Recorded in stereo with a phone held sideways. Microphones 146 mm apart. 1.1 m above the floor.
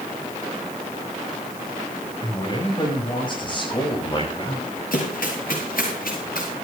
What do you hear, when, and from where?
2.2 s a man speaking: 30° left (ahead or behind), 6.5 m; by 4.8 s 40° left (ahead or behind), 5.5 m
4.9 s running footsteps: 80° left, 8.5 m